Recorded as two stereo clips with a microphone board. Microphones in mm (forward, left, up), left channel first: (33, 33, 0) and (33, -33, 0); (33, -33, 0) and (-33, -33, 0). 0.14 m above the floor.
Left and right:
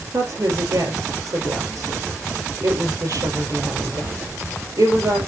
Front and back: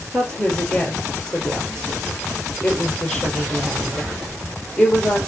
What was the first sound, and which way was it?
A woman speaking, 80° right.